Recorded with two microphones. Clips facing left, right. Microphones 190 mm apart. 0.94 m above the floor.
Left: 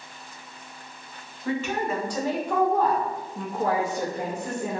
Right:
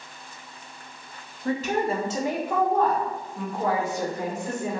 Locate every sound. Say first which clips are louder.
1.4 s a woman speaking: right 2 dB; 40° right (ahead or behind), 0.8 m; by 4.8 s 45° left (ahead or behind), 1.4 m